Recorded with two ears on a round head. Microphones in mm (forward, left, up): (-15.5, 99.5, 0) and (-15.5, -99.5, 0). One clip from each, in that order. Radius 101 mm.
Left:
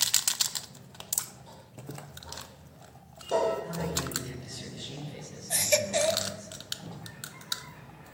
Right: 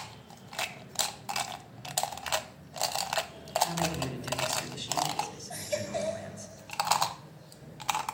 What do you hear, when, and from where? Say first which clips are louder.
3.6 s a man speaking: right 2 dB; 45° right (ahead or behind), 7.5 m
5.5 s a baby crying: left 9 dB; 60° left (ahead or behind), 1.6 m